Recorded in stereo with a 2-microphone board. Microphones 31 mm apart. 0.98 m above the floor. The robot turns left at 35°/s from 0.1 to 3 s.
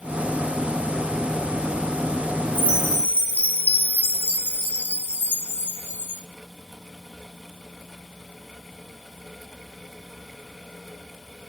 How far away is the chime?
About 2.5 m.